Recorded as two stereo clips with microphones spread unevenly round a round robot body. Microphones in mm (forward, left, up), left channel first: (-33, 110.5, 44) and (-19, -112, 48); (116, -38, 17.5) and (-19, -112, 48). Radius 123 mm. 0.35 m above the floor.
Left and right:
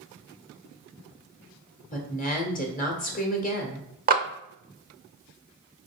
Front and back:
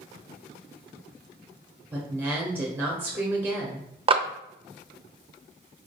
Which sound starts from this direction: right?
A clap, at 4.1 s.